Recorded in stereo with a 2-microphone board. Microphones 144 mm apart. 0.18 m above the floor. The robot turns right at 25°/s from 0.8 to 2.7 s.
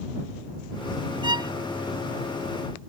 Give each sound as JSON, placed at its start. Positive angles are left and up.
{"t": 1.2, "sound": "a violin", "side_deg": -35}